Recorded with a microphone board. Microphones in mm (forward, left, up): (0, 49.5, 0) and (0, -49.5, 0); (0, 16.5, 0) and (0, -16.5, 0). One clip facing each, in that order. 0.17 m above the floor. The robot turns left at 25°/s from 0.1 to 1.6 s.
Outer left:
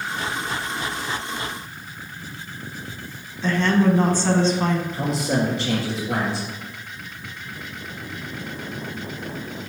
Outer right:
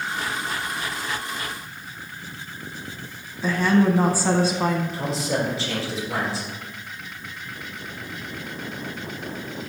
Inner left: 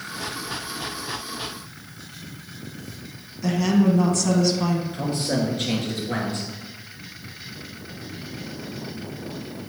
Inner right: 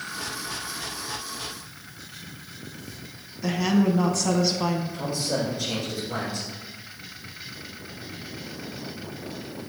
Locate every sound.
3.4 s a woman speaking: 10° right (ahead or behind), 1.1 m
4.9 s a man speaking: 60° left (ahead or behind), 2.5 m